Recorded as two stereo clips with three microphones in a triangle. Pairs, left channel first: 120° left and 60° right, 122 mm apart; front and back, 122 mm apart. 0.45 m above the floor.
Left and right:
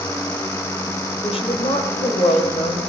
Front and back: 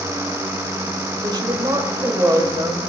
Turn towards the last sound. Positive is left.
turn(degrees=115)